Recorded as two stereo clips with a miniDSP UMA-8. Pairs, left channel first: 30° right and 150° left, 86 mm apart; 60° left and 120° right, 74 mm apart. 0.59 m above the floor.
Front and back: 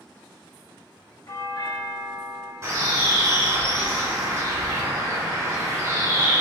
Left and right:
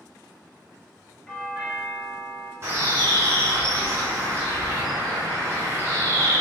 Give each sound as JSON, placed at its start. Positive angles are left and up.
{"t": 1.3, "sound": "a doorbell", "azimuth_deg": -20, "distance_m": 1.5}
{"t": 2.6, "sound": "a bird", "azimuth_deg": -170, "distance_m": 1.9}